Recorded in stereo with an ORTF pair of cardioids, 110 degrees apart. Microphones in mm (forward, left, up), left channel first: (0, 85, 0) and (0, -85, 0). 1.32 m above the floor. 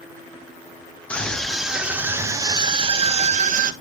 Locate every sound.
1.1 s a scream: 5° left, 1.7 m; by 3.7 s 55° right, 1.4 m